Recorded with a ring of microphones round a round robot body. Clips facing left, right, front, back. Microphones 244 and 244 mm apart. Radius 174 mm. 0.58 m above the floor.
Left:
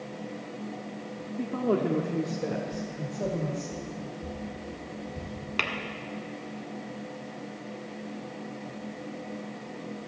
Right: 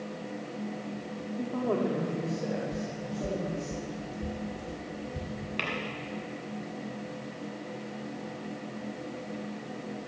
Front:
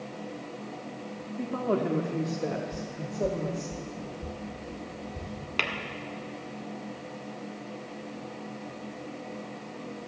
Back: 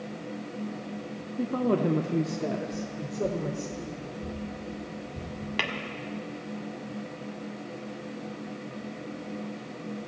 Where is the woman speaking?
155° left, 0.7 m; by 3.7 s 130° left, 1.9 m.